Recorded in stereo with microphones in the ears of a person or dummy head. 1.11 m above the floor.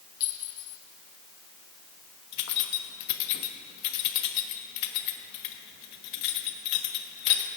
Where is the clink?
20° left (ahead or behind), 3 m.